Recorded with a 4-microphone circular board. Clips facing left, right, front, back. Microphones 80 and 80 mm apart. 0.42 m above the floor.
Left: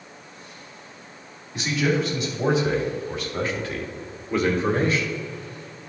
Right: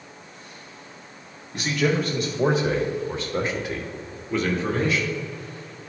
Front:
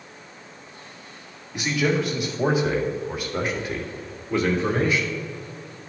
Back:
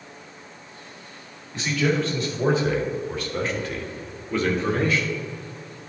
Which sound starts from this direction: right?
A man speaking, at 1.5 s.